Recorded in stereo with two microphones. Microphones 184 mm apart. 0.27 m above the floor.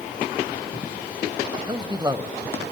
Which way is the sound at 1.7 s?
25° right (ahead or behind).